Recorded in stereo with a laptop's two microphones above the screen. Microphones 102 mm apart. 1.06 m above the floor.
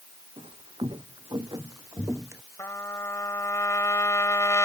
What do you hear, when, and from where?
0.4 s footsteps: 60° right (ahead or behind); by 2.4 s 25° right (ahead or behind)
2.6 s a trumpet: 30° left (ahead or behind)